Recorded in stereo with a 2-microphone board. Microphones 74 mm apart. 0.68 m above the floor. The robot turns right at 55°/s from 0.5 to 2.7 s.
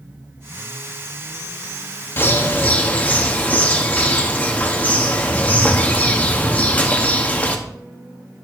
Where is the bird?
30° left (ahead or behind), 1.0 m; by 7.6 s 25° left (ahead or behind), 1.0 m.